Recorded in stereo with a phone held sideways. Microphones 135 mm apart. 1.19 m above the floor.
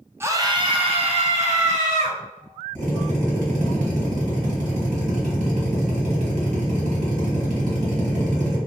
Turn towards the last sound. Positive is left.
turn(degrees=-70)  # may be behind; listen again after turning